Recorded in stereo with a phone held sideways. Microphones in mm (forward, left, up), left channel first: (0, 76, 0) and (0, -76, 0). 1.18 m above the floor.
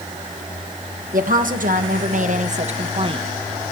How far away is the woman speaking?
About 1.3 m.